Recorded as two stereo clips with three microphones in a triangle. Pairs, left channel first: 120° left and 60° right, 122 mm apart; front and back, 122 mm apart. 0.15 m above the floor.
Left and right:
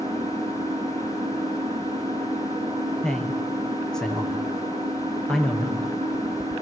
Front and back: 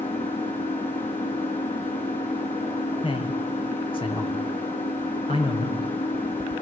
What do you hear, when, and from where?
0.0 s an engine running: 5° right, 4.5 m
3.0 s a man speaking: 35° left, 3.5 m